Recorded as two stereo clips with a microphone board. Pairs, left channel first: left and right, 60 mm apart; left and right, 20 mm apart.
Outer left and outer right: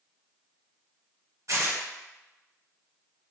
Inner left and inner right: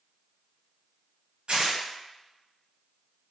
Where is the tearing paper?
60° right (ahead or behind), 1.1 m.